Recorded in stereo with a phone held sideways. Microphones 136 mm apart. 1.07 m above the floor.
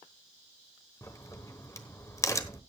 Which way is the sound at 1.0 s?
20° left (ahead or behind).